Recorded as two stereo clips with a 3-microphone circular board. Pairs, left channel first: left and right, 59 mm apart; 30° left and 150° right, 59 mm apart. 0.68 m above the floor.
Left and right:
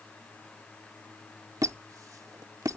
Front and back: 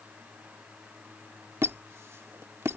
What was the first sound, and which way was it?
A squeak, 110° right.